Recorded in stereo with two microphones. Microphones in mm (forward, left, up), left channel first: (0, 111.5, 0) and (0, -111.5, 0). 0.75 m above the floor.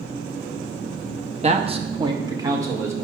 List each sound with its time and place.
1.4 s a man speaking: 30° right (ahead or behind), 0.9 m; by 3.0 s 15° right (ahead or behind), 2.5 m